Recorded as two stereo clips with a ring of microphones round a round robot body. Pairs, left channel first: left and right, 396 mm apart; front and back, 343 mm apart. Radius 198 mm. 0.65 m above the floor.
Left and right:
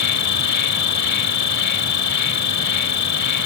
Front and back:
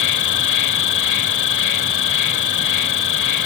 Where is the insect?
40° left.